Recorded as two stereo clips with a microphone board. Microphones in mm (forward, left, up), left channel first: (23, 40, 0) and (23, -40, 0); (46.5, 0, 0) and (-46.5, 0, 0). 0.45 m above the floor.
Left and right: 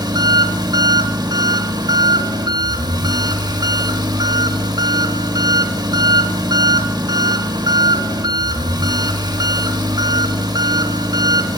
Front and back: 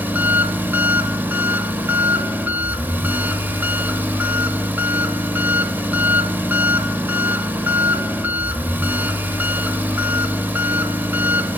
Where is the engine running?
110° right, 0.8 m.